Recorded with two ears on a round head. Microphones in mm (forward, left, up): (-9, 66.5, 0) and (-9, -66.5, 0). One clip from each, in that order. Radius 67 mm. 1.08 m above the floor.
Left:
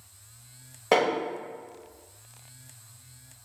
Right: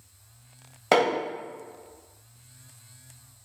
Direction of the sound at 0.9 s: 15° right (ahead or behind).